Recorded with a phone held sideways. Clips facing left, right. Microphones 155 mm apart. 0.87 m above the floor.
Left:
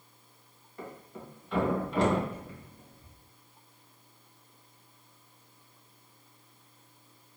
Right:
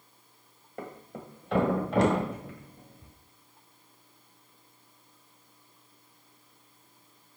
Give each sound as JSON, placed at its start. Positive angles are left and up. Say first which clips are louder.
{"t": 0.8, "sound": "a thud", "louder": "right 3 dB", "side_deg": -75, "distance_m": 1.5}